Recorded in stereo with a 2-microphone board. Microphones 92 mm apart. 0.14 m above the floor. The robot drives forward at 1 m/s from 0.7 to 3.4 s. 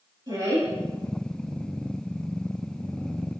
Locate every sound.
0.3 s a woman speaking: 50° right (ahead or behind), 3 m